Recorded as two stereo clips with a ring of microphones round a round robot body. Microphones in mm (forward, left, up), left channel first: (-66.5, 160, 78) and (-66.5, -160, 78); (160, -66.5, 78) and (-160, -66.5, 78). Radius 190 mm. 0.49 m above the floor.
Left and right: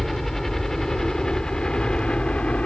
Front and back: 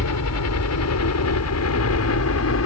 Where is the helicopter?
Straight ahead; by 2.7 s 5° left.